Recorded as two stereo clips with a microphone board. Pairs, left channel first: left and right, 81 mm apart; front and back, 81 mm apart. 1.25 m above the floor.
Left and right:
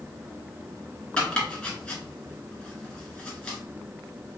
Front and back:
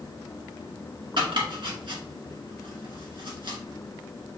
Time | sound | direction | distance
1.2 | chopping | 170° left | 1.6 m